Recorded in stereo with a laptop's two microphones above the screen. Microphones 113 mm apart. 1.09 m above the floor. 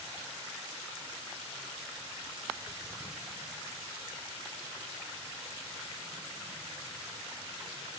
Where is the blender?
No blender in this recording.